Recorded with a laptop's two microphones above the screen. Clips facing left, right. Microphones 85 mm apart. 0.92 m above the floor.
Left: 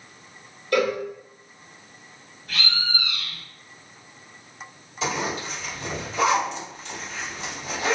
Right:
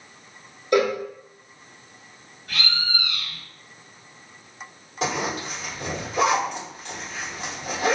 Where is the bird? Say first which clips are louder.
Even; 55° right (ahead or behind), 1.5 m.